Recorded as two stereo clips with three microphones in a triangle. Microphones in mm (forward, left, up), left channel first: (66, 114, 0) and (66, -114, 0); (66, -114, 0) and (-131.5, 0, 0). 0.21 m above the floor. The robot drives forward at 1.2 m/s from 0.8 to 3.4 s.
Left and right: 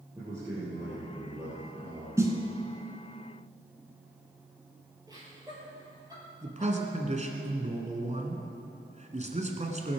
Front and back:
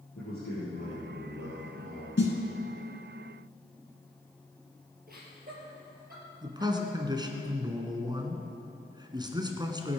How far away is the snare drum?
About 1.9 m.